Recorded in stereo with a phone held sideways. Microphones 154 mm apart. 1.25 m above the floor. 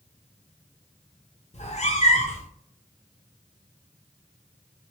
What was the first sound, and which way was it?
A cat meowing, 45° left (ahead or behind).